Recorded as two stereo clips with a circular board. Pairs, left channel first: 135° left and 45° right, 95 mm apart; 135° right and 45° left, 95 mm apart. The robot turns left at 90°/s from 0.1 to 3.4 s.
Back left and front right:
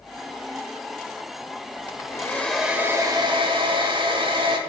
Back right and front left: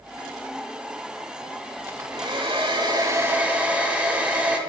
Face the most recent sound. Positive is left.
turn(degrees=-30)